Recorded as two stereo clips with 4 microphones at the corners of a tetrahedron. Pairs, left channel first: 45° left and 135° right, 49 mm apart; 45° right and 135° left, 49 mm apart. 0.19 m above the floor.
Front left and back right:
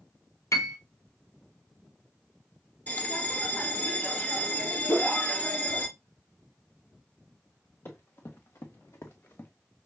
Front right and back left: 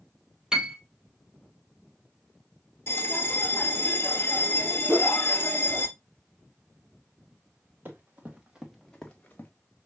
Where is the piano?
60° left, 0.8 m.